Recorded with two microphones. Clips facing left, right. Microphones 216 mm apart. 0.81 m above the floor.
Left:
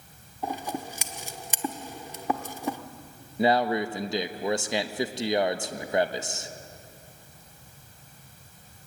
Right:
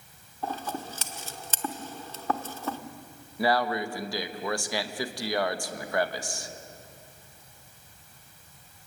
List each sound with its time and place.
0.4 s scissors: 15° left (ahead or behind), 1.1 m
3.4 s a man speaking: 20° left (ahead or behind), 1.0 m